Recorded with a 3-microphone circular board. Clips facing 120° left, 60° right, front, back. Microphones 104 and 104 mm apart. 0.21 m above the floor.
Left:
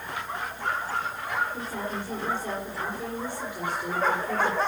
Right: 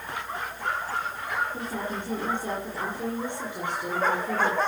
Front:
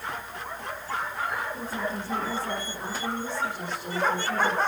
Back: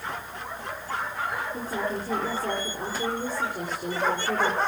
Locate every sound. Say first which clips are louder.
1.5 s a woman speaking: right 1 dB, back 2 dB; 130° right, 6.5 m